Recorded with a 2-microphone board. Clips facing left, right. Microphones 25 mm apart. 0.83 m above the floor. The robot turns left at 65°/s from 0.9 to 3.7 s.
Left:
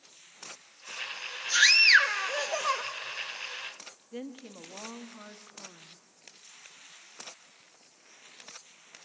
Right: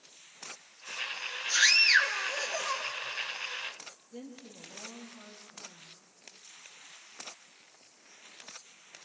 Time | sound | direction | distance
1.5 | a scream | 160° left | 1.0 m
4.1 | a woman speaking | 45° left (ahead or behind) | 1.2 m